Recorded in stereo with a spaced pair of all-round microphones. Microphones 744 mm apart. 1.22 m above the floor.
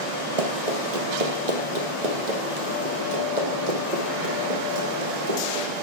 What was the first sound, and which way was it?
Running footsteps, 50° right (ahead or behind).